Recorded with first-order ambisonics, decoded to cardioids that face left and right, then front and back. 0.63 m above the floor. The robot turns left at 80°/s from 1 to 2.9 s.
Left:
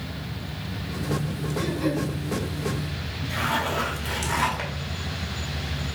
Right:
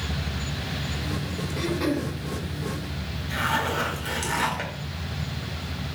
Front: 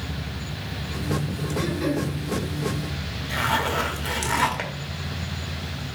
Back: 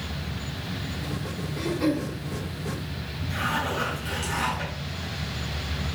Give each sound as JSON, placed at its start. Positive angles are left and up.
{"t": 1.6, "sound": "throat clearing", "azimuth_deg": -80, "distance_m": 0.9}
{"t": 3.3, "sound": "a zipper", "azimuth_deg": 5, "distance_m": 0.7}